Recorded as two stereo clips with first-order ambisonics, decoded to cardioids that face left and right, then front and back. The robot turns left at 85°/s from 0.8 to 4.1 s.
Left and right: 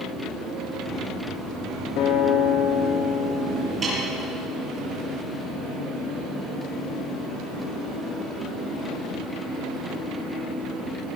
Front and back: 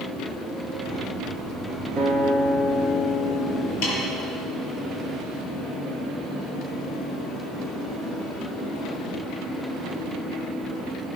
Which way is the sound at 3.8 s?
15° right.